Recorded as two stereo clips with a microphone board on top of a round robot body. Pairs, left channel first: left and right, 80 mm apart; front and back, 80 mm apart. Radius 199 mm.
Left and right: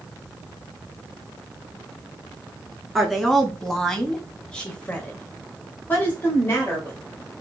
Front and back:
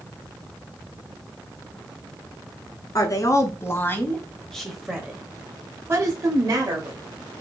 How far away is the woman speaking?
About 1.6 m.